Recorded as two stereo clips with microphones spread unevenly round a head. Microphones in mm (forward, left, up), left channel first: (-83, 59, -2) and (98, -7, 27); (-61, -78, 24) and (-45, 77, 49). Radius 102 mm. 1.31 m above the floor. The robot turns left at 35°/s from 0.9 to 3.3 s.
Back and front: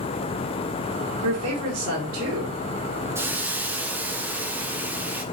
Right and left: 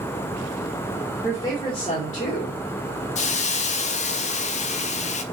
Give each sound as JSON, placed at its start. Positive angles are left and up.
{"t": 1.2, "sound": "a woman speaking", "azimuth_deg": -15, "distance_m": 1.5}
{"t": 3.1, "sound": "a hiss", "azimuth_deg": -100, "distance_m": 0.5}